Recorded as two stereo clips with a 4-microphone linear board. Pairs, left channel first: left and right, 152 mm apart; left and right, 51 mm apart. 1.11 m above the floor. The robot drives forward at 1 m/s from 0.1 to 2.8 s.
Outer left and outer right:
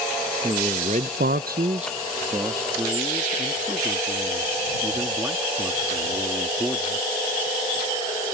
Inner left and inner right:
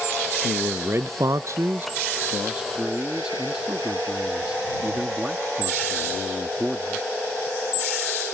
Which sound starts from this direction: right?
A man speaking, at 0.4 s.